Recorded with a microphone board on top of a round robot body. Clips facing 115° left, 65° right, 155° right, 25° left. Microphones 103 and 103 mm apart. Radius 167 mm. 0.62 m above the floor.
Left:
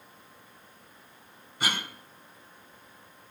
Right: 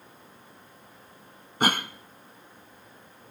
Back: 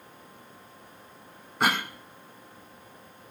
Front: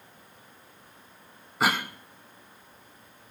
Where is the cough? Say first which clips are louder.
Right 7 dB, even; 65° right, 0.6 m.